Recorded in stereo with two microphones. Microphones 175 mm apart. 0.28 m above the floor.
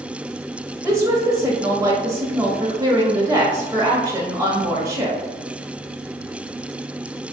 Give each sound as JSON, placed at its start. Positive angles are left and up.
{"t": 0.8, "sound": "a woman speaking", "side_deg": -20, "distance_m": 1.0}